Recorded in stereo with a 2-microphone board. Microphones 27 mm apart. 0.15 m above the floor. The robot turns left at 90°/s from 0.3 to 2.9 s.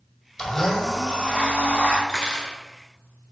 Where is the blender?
30° left, 1.9 m; by 2.0 s 115° right, 1.9 m.